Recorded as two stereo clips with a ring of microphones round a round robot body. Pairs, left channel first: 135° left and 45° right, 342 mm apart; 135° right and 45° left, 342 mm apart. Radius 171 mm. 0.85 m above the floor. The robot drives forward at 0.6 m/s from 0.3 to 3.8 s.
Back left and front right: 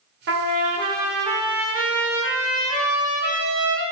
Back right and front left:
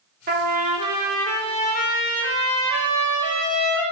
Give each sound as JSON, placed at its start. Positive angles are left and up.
{"t": 0.3, "sound": "a trumpet", "azimuth_deg": 0, "distance_m": 0.8}